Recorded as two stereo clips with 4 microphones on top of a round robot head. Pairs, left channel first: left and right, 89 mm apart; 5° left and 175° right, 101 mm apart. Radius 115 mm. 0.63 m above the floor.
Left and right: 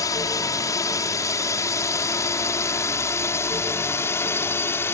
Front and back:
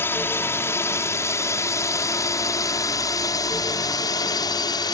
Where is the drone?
65° left; by 5.0 s 35° left.